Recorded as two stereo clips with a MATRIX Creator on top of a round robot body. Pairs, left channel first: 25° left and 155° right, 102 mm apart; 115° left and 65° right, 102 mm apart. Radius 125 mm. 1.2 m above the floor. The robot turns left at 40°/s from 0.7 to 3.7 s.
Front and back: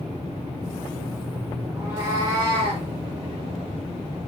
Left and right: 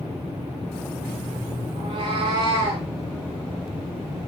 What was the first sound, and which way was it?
A cat meowing, 80° right.